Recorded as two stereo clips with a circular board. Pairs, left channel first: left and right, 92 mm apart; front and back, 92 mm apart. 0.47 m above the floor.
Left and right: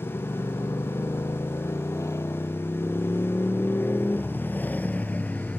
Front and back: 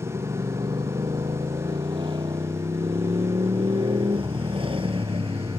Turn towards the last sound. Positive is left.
turn(degrees=170)